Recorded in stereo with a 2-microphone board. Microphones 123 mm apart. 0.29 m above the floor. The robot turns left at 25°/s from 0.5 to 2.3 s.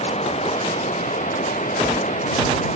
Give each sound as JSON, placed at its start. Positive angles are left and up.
{"t": 0.0, "sound": "running water", "azimuth_deg": 120}